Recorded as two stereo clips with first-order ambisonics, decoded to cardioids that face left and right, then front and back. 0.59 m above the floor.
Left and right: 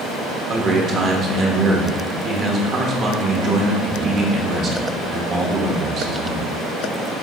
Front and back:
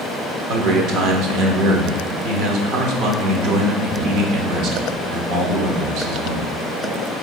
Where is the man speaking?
145° right, 1.2 m.